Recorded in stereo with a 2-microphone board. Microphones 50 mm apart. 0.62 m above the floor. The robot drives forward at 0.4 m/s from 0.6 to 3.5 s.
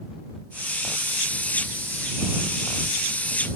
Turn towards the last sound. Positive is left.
No sound to turn to.